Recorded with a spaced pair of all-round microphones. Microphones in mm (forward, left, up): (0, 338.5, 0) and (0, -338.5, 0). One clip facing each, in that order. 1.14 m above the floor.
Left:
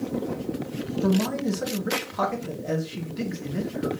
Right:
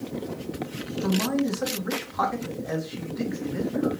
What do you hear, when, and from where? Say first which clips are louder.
1.0 s a man speaking: even; 55° left (ahead or behind), 1.0 m